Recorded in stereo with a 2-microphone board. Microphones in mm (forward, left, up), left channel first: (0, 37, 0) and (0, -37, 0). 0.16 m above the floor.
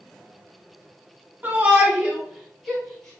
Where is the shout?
25° right (ahead or behind), 1.4 m; by 3.2 s 10° left (ahead or behind), 1.4 m.